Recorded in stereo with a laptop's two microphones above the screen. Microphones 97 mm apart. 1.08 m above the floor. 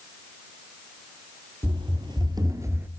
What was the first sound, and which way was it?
Running footsteps, 55° right (ahead or behind).